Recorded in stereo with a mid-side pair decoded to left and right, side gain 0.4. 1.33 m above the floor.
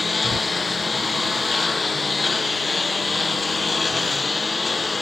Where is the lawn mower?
30° left.